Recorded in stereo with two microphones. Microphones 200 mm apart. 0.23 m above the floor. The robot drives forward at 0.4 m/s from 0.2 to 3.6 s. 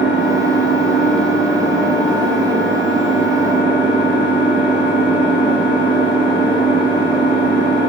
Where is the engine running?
70° right (ahead or behind), 3.5 m; by 7.9 s 75° right (ahead or behind), 3.5 m.